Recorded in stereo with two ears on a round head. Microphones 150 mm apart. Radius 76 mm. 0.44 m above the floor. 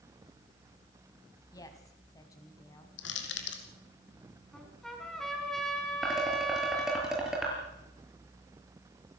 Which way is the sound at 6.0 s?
5° right (ahead or behind).